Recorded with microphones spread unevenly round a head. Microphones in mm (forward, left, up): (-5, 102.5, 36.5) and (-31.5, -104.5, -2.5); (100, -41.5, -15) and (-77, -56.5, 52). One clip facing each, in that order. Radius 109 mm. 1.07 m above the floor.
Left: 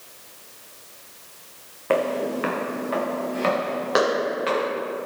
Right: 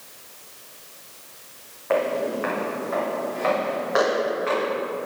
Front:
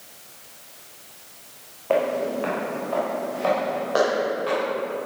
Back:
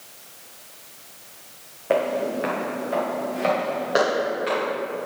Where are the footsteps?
115° left, 3 m; by 4.7 s 120° left, 5.5 m.